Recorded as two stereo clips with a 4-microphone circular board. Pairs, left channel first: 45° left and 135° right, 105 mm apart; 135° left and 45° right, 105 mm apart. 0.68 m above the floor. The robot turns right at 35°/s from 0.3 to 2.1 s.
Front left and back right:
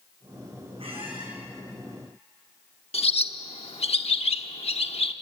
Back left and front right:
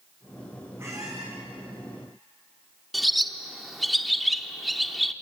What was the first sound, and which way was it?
A squeak, 110° right.